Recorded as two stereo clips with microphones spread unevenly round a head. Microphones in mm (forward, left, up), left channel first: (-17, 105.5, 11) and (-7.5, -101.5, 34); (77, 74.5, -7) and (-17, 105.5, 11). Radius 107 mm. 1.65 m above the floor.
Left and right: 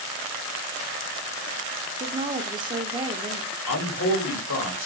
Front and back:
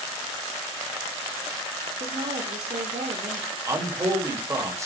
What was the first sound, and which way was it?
A woman speaking, 160° right.